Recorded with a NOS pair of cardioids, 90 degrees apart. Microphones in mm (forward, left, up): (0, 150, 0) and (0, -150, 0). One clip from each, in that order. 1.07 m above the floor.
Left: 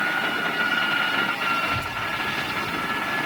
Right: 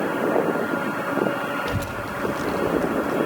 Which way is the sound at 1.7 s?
45° right.